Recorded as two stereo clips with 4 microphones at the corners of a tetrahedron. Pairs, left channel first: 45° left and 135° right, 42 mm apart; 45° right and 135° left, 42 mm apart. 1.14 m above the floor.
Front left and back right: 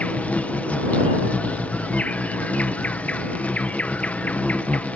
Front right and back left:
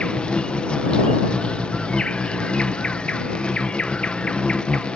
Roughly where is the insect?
Ahead.